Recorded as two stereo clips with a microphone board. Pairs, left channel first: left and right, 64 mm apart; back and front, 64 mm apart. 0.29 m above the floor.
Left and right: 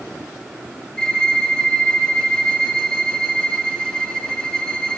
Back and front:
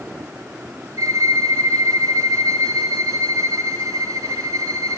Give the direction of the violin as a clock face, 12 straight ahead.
12 o'clock.